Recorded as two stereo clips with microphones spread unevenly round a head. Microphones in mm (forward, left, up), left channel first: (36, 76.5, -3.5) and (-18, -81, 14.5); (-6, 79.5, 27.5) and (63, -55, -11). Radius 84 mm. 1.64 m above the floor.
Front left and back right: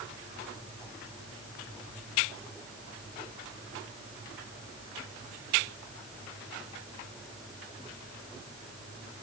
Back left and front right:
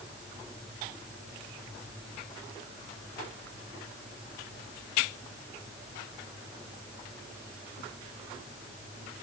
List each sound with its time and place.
Only background noise.